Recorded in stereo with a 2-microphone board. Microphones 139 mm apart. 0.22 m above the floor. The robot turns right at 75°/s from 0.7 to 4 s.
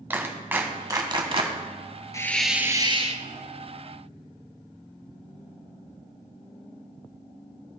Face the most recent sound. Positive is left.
turn(degrees=-65)